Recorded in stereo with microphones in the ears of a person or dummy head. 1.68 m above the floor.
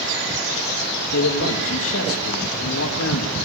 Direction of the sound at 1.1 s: 75° left (ahead or behind).